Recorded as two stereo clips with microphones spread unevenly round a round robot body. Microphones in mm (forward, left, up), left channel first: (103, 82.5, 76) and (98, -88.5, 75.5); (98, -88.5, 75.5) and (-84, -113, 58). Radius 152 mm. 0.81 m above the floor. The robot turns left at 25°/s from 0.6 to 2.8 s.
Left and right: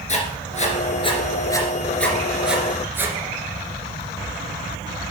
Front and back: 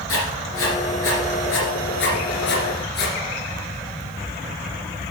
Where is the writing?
40° left, 2.5 m; by 3.1 s 15° right, 2.5 m.